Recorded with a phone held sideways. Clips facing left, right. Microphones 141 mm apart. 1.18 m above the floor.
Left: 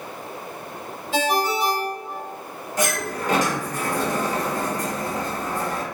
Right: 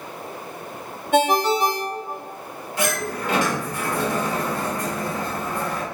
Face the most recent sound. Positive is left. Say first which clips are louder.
# even
turn(degrees=40)  # may be behind; listen again after turning